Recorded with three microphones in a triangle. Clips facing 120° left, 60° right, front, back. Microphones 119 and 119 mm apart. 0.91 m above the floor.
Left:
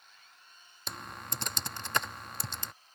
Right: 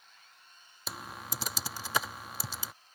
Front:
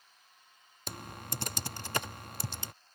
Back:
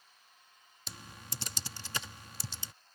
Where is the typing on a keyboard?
25° left.